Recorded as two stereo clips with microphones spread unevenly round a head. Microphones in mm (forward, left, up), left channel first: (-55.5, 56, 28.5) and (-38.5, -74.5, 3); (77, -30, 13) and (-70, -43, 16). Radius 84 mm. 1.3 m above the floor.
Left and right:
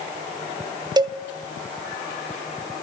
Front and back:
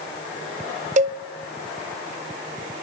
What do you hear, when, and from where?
1.0 s a cowbell: 145° right, 0.6 m